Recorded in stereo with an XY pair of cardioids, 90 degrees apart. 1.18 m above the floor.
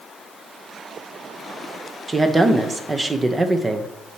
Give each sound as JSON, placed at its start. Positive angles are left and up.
{"t": 2.1, "sound": "a woman speaking", "azimuth_deg": -25, "distance_m": 0.7}